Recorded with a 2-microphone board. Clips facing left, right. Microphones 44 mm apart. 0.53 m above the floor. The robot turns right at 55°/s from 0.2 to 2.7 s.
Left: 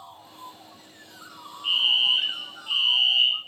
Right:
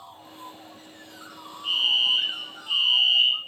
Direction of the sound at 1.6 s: 25° left (ahead or behind).